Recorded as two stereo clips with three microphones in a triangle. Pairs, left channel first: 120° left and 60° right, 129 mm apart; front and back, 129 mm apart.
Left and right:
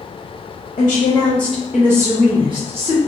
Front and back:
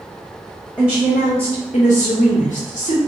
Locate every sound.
0.8 s a woman speaking: 70° left, 0.7 m; by 3.0 s 20° right, 1.1 m